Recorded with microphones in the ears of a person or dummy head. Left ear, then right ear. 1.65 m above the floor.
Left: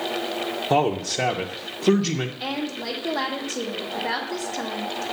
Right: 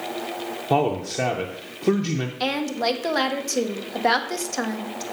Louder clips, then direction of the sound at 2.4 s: Right 5 dB; 75° right (ahead or behind).